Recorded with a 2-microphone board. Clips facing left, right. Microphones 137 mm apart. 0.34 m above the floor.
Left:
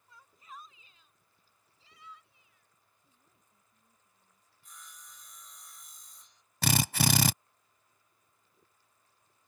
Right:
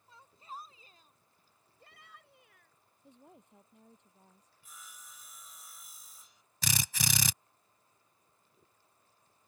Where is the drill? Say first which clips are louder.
Left 9 dB; 65° left (ahead or behind).